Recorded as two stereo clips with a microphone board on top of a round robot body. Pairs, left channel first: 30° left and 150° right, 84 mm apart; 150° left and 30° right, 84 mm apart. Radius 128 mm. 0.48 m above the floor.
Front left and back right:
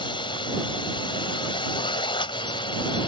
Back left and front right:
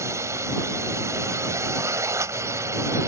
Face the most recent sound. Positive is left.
turn(degrees=25)